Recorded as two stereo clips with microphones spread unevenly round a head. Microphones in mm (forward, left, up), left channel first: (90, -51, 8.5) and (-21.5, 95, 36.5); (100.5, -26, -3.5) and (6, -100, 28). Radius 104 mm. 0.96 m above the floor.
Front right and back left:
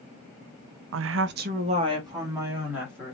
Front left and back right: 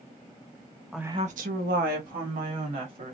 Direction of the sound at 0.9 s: 120° left.